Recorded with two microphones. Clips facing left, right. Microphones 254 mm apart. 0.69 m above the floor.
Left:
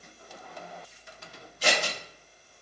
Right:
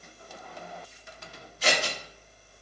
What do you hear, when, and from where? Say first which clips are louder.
1.6 s scissors: even; 35° left (ahead or behind), 2.0 m